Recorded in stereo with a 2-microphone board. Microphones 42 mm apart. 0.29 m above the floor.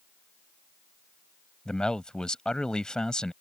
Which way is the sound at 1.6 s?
20° left (ahead or behind).